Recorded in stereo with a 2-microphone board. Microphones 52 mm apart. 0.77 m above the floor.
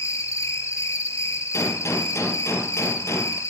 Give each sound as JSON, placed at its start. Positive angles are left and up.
{"t": 0.0, "sound": "an insect", "side_deg": 75, "distance_m": 4.0}
{"t": 1.5, "sound": "a gunshot", "side_deg": 65, "distance_m": 3.0}